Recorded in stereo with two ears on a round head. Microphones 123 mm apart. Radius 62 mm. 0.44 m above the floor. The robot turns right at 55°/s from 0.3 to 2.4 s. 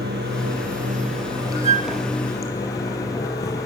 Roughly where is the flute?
Right.